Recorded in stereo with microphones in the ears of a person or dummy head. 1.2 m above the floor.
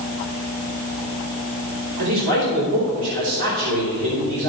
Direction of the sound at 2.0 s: 80° right.